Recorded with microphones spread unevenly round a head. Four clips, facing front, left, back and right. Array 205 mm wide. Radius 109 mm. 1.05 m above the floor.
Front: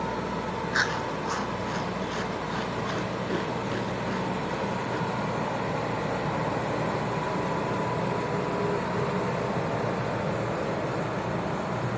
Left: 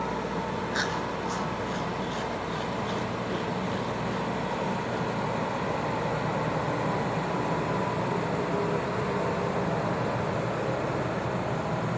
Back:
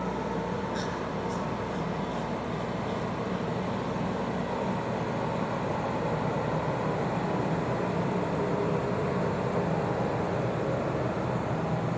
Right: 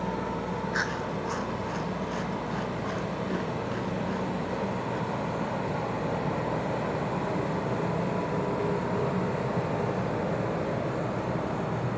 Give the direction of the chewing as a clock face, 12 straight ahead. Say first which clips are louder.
Left 1 dB, front 3 dB; 12 o'clock.